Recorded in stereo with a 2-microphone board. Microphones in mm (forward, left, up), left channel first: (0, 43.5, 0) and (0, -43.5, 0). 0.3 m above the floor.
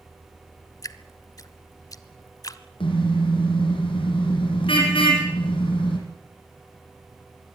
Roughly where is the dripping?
Left.